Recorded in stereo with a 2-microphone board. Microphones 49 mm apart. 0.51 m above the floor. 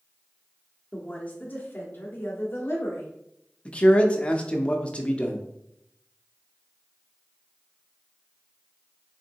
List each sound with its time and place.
0.9 s a woman speaking: 15° left (ahead or behind), 0.8 m; by 3.1 s 55° left (ahead or behind), 2.0 m
3.6 s a man speaking: 25° left (ahead or behind), 0.7 m